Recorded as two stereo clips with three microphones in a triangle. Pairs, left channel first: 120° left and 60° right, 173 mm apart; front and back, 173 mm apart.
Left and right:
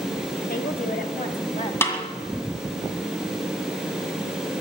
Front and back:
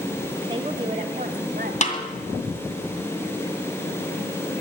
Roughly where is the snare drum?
Ahead left.